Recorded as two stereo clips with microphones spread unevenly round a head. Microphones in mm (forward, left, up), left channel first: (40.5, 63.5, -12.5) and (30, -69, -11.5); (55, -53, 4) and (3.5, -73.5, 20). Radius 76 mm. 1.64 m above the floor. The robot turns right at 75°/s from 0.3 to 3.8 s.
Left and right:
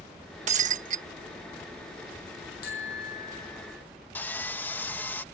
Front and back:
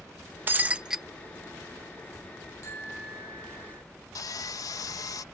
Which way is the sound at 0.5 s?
125° right.